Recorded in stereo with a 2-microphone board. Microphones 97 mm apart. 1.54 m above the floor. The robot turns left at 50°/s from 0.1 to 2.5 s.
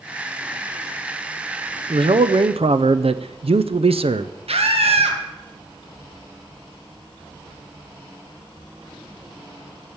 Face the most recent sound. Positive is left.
turn(degrees=-85)